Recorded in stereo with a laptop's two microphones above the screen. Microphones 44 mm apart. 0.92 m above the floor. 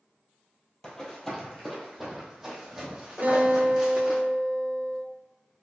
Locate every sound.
0.8 s running footsteps: 15° left (ahead or behind), 1.5 m; by 4.2 s 15° right (ahead or behind), 3 m
3.2 s a guitar: 45° right (ahead or behind), 0.8 m